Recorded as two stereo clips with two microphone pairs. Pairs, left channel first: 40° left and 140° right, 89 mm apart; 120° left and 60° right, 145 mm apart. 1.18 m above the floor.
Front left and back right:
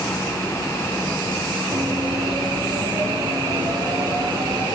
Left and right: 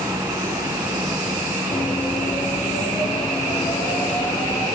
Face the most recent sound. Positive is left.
turn(degrees=-175)